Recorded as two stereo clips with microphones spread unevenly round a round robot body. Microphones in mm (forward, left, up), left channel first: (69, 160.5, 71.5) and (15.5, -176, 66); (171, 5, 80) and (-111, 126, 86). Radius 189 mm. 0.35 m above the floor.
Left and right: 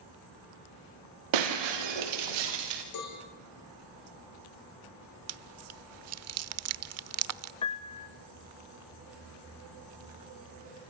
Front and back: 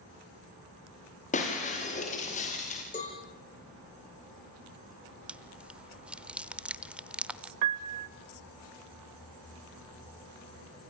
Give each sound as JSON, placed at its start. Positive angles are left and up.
{"t": 1.3, "sound": "breaking glass", "azimuth_deg": -95, "distance_m": 5.5}
{"t": 2.9, "sound": "a cowbell", "azimuth_deg": 45, "distance_m": 9.0}
{"t": 5.3, "sound": "chewing", "azimuth_deg": -115, "distance_m": 0.8}
{"t": 7.6, "sound": "a piano", "azimuth_deg": 155, "distance_m": 0.8}